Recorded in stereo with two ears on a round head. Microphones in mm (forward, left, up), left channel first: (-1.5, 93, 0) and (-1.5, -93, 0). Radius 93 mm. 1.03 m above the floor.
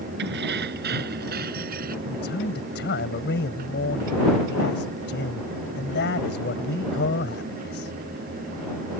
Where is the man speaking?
55° left (ahead or behind).